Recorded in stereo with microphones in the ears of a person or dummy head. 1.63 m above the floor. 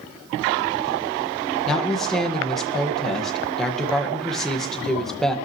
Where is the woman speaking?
Centre (ahead or behind), 1.8 m.